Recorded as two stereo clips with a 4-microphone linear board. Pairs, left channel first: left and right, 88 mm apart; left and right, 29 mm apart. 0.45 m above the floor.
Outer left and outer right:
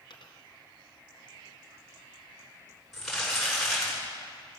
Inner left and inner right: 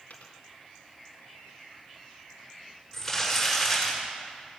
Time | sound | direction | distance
0.1 | a dropped coin | 65° left (ahead or behind) | 1.7 m
2.9 | crumpling | centre (ahead or behind) | 5.5 m